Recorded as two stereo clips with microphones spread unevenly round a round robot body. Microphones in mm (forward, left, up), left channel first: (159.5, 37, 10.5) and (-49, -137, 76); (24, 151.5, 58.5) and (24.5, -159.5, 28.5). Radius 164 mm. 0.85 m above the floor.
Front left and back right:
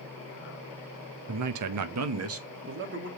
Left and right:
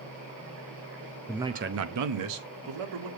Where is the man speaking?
Straight behind, 0.7 m; by 3.1 s 90° right, 2 m.